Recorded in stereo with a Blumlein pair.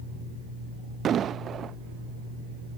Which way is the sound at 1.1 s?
25° right.